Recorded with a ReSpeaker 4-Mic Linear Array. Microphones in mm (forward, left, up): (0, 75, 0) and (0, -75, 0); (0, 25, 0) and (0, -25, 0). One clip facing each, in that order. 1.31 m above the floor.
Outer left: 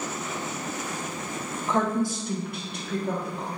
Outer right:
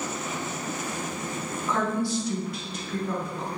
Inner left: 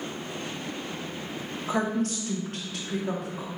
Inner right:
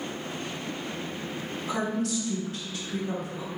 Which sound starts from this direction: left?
A woman speaking, at 1.7 s.